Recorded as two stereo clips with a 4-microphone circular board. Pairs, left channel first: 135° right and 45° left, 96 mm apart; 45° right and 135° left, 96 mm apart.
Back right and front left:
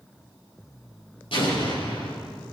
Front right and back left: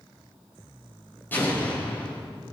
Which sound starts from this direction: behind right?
An explosion, at 1.3 s.